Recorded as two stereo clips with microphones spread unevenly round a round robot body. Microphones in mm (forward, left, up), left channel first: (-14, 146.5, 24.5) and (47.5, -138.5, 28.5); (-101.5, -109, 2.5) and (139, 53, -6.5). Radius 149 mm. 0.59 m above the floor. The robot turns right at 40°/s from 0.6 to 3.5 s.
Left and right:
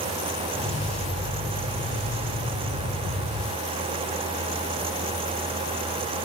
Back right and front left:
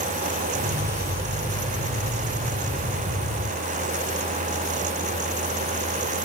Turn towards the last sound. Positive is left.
No sound to turn to.